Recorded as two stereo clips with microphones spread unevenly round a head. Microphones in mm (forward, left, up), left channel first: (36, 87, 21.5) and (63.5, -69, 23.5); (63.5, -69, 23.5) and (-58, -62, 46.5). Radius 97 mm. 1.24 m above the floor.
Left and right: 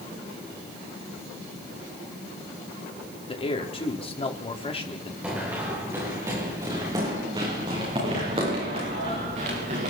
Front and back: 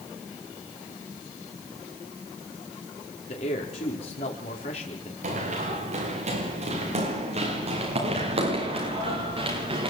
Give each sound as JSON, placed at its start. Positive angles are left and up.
{"t": 3.3, "sound": "a man speaking", "azimuth_deg": 45, "distance_m": 4.0}
{"t": 5.2, "sound": "running footsteps", "azimuth_deg": -165, "distance_m": 7.5}